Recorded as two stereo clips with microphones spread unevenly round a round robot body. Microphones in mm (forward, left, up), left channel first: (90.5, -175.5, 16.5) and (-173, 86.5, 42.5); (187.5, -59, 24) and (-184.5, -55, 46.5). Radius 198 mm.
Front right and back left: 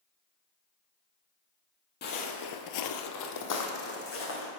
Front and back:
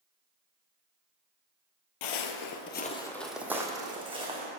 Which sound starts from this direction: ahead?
Footsteps, at 2.0 s.